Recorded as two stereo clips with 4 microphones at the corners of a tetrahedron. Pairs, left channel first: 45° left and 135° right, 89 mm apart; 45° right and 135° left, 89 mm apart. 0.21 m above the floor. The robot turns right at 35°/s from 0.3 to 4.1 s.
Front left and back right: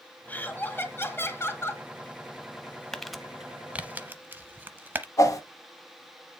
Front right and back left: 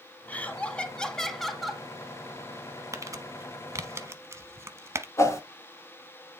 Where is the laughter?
Straight ahead, 1.1 m; by 1.8 s 55° left, 1.1 m.